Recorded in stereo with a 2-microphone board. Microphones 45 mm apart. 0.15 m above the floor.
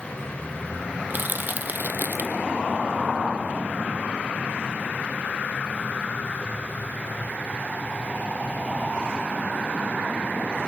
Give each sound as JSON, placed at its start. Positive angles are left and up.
{"t": 1.1, "sound": "crushing", "side_deg": -45, "distance_m": 0.8}